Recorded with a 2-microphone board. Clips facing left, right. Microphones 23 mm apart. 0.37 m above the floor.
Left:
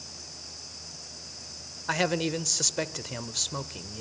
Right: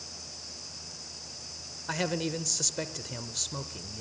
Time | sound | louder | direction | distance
1.9 | a man speaking | left 4 dB | 20° left (ahead or behind) | 0.9 m